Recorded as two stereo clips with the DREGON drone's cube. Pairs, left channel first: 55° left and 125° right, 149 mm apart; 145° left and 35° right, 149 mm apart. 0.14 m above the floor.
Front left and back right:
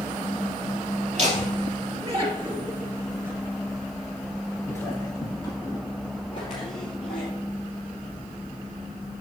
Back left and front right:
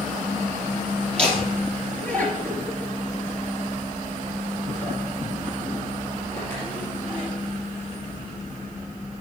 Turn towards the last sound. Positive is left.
turn(degrees=75)